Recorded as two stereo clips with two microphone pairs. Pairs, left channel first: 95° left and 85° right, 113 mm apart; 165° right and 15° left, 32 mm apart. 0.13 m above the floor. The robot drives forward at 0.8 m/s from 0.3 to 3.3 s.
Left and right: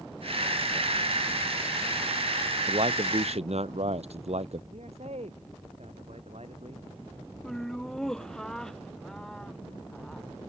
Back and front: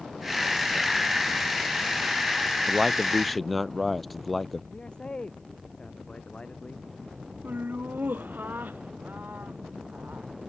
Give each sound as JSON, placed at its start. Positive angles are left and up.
{"t": 2.7, "sound": "a man speaking", "azimuth_deg": -70}
{"t": 4.7, "sound": "a man speaking", "azimuth_deg": -105}
{"t": 7.4, "sound": "laughter", "azimuth_deg": 10}